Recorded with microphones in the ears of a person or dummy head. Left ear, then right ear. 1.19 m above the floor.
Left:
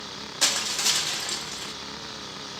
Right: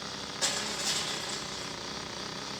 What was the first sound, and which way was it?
Crushing, 40° left (ahead or behind).